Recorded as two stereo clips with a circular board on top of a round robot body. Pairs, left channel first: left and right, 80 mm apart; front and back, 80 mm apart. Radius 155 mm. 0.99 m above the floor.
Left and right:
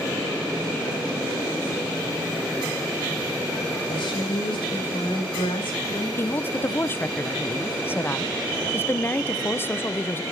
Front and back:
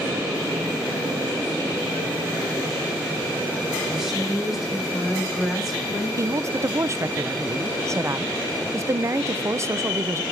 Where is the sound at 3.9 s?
95° left, 6.5 m; by 6.1 s 90° left, 8 m.